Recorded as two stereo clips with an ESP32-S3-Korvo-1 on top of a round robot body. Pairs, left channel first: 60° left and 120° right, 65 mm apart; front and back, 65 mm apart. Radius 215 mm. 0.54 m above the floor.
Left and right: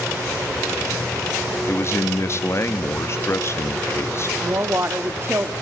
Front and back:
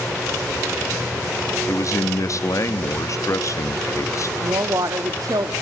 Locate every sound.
1.7 s a man speaking: 20° left, 1.1 m
4.4 s a woman speaking: 165° right, 1.4 m